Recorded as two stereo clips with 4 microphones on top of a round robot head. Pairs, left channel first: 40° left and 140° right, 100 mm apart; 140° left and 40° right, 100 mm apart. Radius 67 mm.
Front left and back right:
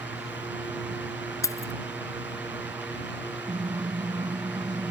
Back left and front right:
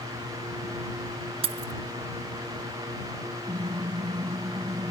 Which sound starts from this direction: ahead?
Keys jangling, at 1.4 s.